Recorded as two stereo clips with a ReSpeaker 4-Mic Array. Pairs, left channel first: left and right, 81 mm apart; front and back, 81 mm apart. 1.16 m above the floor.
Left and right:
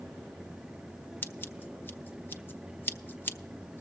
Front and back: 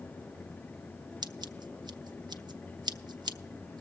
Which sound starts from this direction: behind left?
Scissors, at 1.2 s.